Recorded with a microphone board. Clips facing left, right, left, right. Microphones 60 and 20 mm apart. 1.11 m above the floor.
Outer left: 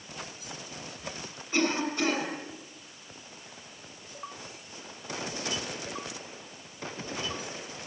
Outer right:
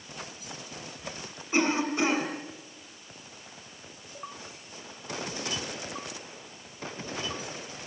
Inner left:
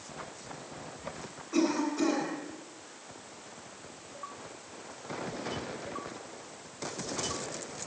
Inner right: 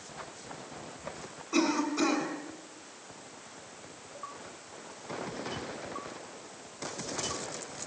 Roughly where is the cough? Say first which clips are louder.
Outer right 2 dB, even; centre.